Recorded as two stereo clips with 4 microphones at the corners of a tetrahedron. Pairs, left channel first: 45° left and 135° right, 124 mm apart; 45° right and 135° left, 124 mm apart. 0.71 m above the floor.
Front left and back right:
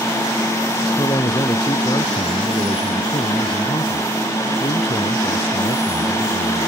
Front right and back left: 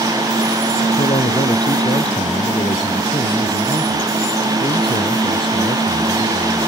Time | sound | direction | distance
1.0 | a man speaking | 10° right | ?